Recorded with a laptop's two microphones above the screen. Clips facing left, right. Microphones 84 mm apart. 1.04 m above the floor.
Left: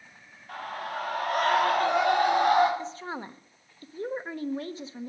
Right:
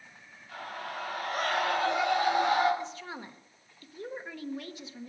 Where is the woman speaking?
35° left (ahead or behind), 0.9 m.